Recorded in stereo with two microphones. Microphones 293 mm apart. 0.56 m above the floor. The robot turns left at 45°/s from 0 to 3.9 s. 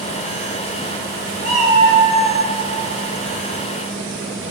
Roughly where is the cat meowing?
Behind right.